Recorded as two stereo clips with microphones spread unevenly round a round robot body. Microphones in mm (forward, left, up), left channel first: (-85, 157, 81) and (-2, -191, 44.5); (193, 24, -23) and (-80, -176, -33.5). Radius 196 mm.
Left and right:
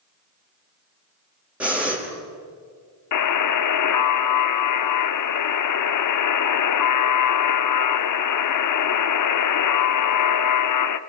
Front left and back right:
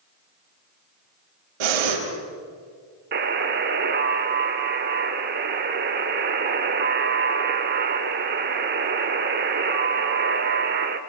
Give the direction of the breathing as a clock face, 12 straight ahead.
5 o'clock.